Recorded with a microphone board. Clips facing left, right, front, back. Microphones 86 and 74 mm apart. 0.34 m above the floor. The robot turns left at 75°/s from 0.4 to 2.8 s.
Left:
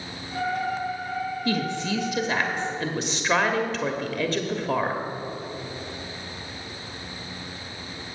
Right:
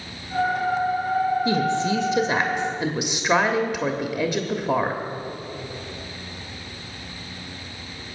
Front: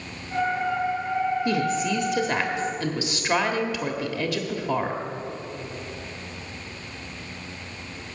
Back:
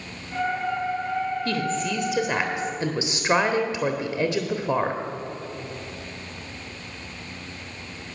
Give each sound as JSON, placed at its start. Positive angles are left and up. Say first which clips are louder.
{"t": 1.4, "sound": "a woman speaking", "louder": "right 5 dB, front 2 dB", "azimuth_deg": -50, "distance_m": 1.1}